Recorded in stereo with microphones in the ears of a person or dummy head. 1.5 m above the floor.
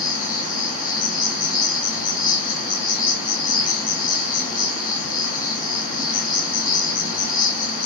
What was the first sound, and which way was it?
An insect, 15° left (ahead or behind).